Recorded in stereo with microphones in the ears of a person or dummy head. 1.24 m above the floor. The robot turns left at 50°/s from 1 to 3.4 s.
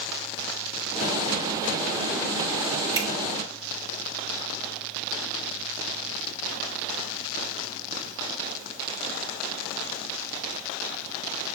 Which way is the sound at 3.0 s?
25° right (ahead or behind).